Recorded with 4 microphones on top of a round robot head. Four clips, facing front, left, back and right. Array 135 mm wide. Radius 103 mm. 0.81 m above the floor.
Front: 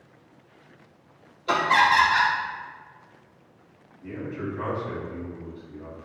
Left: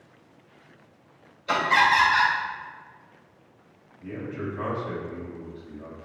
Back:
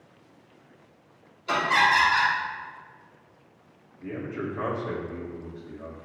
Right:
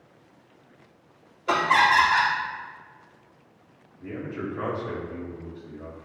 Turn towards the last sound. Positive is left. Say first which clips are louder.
# even, even
turn(degrees=-145)